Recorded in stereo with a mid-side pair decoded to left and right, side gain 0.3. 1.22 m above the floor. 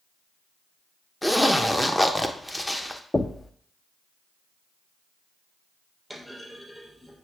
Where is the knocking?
35° left, 0.6 m.